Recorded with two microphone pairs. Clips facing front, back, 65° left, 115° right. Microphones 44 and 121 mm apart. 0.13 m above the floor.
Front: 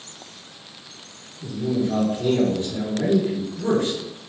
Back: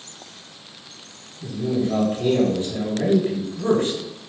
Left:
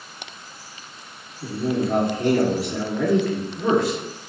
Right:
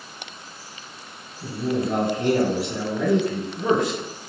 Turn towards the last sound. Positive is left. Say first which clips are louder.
# even, left 1 dB
turn(degrees=-170)